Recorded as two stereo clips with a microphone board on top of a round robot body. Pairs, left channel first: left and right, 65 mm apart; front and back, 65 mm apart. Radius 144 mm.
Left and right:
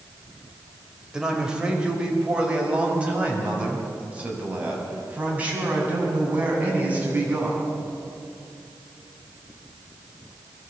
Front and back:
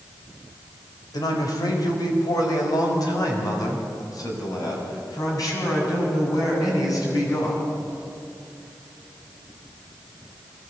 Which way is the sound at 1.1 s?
10° right.